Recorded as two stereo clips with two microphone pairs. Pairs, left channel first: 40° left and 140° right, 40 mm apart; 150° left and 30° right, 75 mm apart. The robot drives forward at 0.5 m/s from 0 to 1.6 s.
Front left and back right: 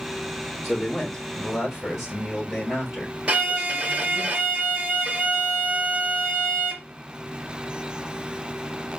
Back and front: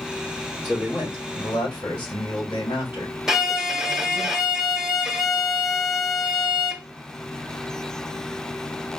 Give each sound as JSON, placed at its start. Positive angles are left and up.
{"t": 0.6, "sound": "a man speaking", "azimuth_deg": 115, "distance_m": 4.5}
{"t": 3.3, "sound": "a violin", "azimuth_deg": -110, "distance_m": 0.8}